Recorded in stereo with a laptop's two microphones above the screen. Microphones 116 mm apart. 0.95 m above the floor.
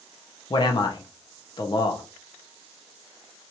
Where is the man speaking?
40° left (ahead or behind), 1.0 m.